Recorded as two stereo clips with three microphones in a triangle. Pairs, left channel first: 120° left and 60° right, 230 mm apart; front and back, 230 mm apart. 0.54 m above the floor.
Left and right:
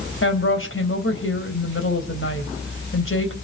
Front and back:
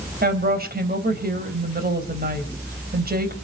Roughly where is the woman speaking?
Behind left.